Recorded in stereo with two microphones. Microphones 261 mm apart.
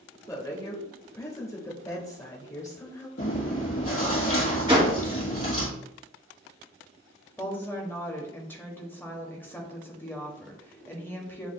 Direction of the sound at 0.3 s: 10° left (ahead or behind).